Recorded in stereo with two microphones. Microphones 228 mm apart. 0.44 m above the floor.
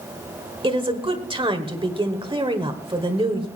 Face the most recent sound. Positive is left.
turn(degrees=-20)  # may be behind; listen again after turning